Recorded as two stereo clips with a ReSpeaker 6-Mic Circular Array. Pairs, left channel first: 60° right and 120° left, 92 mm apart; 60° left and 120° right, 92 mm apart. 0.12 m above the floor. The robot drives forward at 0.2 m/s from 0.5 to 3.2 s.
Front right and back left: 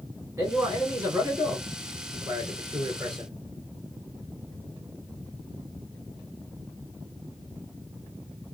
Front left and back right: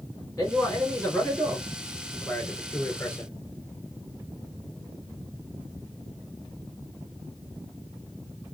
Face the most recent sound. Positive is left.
turn(degrees=110)